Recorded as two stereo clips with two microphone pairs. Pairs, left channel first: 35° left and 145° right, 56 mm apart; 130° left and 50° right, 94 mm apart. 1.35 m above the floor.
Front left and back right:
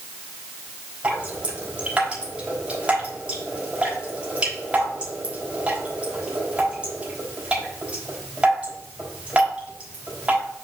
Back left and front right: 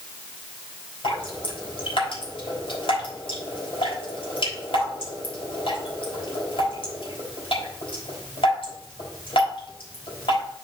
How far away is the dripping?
About 4.5 m.